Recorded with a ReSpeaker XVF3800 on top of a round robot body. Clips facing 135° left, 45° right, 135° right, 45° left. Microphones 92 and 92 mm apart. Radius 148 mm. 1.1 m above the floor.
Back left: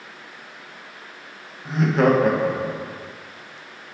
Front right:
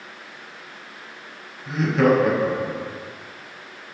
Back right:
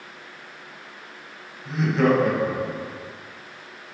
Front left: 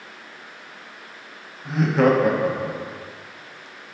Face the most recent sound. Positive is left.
turn(degrees=85)